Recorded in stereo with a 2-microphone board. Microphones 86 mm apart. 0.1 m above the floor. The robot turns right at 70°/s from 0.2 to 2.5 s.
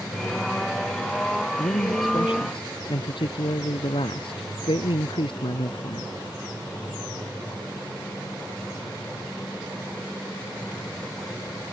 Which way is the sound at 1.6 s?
30° left.